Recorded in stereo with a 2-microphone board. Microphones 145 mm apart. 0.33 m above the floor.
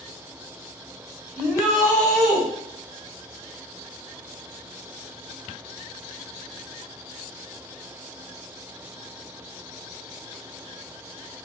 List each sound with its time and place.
1.4 s a shout: 15° right (ahead or behind), 1.2 m